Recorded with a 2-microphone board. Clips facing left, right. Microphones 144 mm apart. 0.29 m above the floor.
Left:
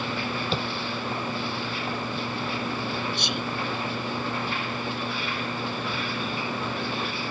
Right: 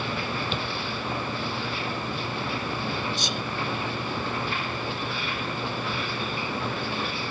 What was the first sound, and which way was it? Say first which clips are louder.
Tapping: left 2 dB; 35° left (ahead or behind).